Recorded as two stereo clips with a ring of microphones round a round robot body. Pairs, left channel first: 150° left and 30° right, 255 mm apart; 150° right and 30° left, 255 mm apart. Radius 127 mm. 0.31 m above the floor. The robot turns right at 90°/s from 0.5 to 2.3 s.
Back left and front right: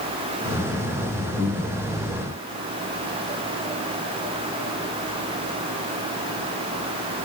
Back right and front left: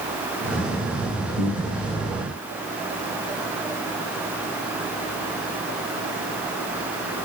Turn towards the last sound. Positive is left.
turn(degrees=-50)